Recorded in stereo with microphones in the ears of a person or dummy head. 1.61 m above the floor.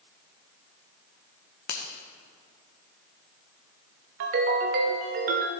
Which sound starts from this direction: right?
A ringtone, at 4.2 s.